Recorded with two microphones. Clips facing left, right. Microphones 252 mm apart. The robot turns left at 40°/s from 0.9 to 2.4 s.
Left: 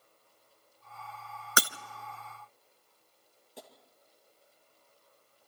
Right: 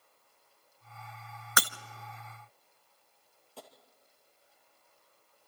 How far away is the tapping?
About 2 m.